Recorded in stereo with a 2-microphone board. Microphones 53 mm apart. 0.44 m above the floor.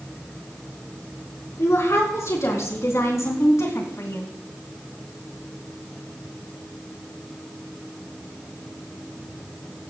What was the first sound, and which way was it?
A woman speaking, 70° left (ahead or behind).